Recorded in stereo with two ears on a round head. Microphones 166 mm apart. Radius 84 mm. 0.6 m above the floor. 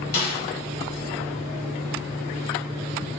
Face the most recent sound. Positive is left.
turn(degrees=50)  # may be behind; listen again after turning